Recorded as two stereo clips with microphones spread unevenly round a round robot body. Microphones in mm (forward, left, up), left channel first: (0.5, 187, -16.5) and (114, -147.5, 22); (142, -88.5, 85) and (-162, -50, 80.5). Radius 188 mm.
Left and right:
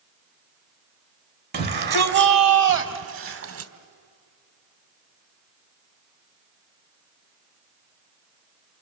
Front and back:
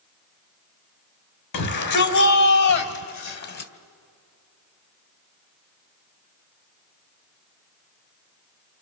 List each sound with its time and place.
1.5 s a shout: 10° right, 3 m; by 3.7 s 25° right, 2 m